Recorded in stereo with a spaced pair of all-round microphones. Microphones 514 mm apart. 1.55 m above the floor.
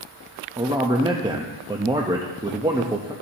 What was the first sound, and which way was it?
A man speaking, 10° right (ahead or behind).